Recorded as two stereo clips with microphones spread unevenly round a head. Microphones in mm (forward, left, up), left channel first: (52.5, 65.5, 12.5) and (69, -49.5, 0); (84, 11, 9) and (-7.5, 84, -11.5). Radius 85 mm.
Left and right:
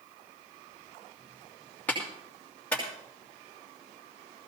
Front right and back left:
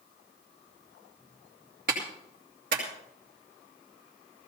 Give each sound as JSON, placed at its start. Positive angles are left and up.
{"t": 1.9, "sound": "a clap", "azimuth_deg": 180, "distance_m": 2.5}